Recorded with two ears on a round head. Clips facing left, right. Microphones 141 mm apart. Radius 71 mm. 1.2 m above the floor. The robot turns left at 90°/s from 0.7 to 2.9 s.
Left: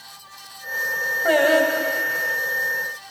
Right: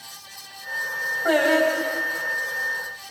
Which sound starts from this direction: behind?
Singing, at 1.2 s.